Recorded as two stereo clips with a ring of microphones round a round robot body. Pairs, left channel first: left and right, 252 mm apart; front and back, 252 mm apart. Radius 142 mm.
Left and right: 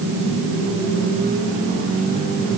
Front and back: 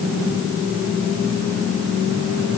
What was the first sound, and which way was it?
Only background noise.